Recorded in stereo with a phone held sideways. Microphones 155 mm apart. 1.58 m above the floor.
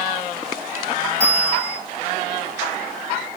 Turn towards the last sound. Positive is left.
turn(degrees=-45)  # may be behind; listen again after turning